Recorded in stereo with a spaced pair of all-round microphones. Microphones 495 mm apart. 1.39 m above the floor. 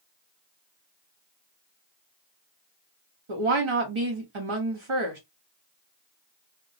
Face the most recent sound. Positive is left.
turn(degrees=-80)